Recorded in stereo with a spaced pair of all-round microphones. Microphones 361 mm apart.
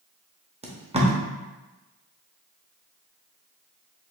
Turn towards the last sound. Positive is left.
turn(degrees=-15)  # may be behind; listen again after turning